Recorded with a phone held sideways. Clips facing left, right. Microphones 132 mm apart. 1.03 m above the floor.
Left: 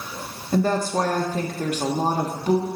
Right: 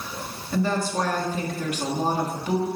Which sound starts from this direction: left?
A woman speaking, at 0.5 s.